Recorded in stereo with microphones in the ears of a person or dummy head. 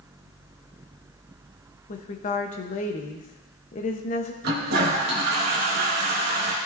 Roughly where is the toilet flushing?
Right.